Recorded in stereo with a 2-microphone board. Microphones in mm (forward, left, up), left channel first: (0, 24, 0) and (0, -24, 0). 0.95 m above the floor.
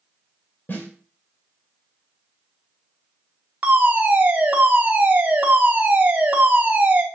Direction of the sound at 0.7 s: 50° left (ahead or behind).